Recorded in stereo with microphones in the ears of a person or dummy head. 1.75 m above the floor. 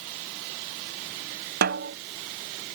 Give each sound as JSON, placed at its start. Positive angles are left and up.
{"t": 1.6, "sound": "a snare drum", "side_deg": -55}